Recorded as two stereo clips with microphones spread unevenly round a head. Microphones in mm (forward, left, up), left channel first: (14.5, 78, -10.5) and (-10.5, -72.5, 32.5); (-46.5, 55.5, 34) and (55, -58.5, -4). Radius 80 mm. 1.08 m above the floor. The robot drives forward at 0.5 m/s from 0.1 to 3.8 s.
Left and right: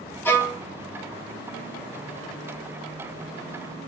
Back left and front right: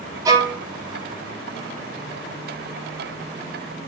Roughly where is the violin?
Ahead.